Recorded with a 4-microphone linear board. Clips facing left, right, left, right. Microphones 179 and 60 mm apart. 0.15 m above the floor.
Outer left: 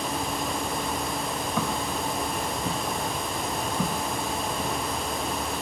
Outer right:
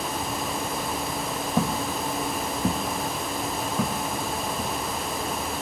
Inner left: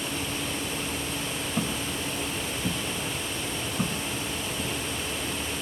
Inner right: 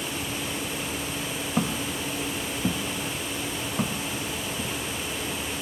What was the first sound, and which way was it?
Footsteps, 35° right (ahead or behind).